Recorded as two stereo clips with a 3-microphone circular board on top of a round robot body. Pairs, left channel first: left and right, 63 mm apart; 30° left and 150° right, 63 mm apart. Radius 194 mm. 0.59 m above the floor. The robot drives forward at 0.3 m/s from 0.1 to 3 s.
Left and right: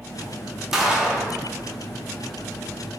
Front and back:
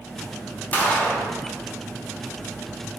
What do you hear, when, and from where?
0.7 s a gunshot: 15° right, 0.9 m; by 1.3 s 25° right, 0.9 m